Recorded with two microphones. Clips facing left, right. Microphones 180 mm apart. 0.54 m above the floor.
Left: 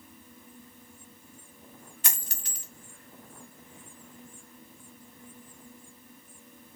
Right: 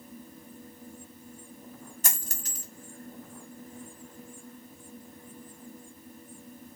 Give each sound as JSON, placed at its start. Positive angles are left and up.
{"t": 2.0, "sound": "a dropped coin", "side_deg": -45, "distance_m": 1.1}